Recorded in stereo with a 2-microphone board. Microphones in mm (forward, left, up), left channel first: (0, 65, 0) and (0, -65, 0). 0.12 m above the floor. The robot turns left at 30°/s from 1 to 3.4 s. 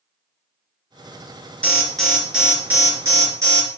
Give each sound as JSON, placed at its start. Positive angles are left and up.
{"t": 1.6, "sound": "an alarm", "azimuth_deg": 10, "distance_m": 3.0}